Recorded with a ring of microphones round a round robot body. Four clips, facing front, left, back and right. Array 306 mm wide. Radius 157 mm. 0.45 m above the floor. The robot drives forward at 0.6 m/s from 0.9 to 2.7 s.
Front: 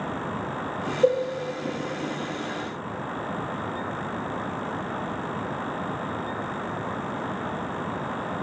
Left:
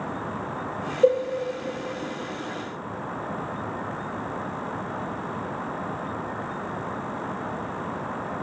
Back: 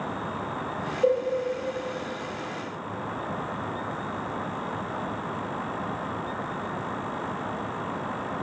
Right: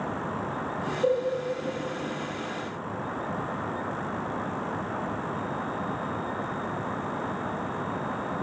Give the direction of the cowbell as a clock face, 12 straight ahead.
10 o'clock.